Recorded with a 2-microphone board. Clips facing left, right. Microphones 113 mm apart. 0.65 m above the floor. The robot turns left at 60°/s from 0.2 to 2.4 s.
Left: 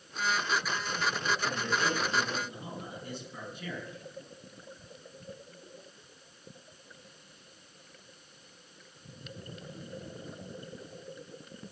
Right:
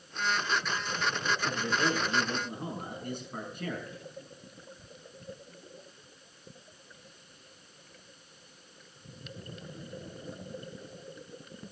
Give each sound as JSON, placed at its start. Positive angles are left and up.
{"t": 1.4, "sound": "a man speaking", "azimuth_deg": -5, "distance_m": 7.5}